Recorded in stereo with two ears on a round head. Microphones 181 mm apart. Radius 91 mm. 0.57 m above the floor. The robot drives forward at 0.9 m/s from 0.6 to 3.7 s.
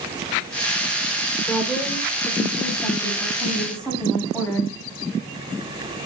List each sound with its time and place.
1.5 s a woman speaking: 10° left (ahead or behind), 1.8 m; by 4.7 s 5° left (ahead or behind), 3.5 m